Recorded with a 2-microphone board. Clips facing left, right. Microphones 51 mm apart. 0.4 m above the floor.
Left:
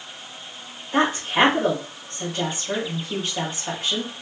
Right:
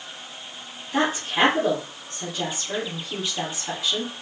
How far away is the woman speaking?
About 2.5 m.